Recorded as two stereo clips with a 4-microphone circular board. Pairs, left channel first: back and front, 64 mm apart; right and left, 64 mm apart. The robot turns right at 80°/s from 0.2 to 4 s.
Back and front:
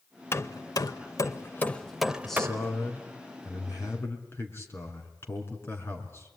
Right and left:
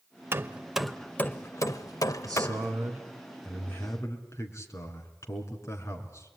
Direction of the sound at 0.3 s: 135° left.